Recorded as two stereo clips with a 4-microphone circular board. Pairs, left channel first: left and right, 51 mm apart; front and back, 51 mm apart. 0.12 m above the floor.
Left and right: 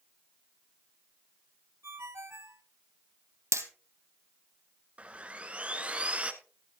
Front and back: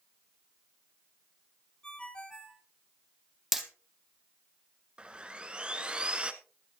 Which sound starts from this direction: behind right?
Sawing, at 5.0 s.